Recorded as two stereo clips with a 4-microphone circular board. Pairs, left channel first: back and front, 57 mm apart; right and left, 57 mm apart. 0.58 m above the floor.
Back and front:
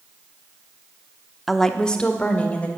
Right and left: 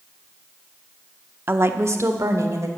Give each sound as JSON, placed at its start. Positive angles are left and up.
{"t": 1.5, "sound": "a woman speaking", "azimuth_deg": 90, "distance_m": 0.8}